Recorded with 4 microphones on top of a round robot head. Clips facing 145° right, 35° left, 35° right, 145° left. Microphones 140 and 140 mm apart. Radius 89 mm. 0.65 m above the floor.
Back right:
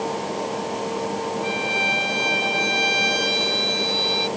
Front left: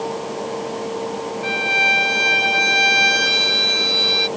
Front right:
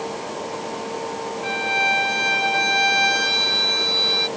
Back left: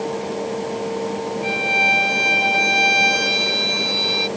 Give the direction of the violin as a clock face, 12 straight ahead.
10 o'clock.